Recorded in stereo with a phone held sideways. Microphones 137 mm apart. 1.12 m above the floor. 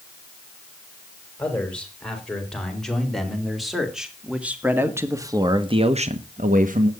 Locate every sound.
1.4 s a man speaking: 10° left (ahead or behind), 4.5 m; by 6.9 s 75° right (ahead or behind), 1.1 m